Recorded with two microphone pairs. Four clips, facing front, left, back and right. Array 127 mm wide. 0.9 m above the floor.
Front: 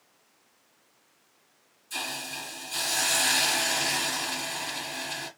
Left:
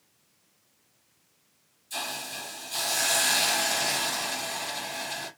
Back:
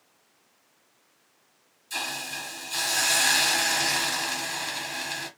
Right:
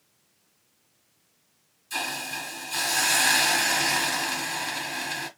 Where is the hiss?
125° right, 1.7 m.